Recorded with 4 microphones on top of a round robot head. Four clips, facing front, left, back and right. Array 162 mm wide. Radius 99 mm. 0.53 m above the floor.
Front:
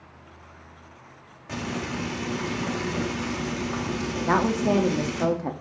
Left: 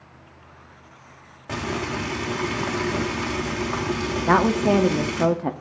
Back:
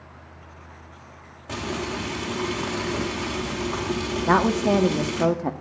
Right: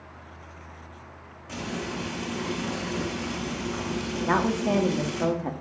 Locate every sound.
1.5 s frying: 110° left, 2.5 m
4.3 s a woman speaking: 120° left, 0.7 m